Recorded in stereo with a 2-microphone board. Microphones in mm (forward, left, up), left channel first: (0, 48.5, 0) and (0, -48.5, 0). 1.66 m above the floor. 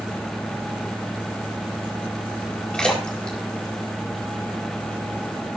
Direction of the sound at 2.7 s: 10° left (ahead or behind).